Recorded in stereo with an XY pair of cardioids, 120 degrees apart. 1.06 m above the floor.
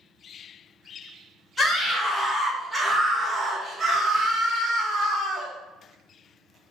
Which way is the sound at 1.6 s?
25° left.